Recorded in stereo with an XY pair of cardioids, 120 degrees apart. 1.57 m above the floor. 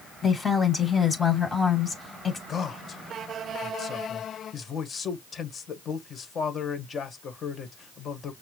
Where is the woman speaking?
25° left, 2.5 m.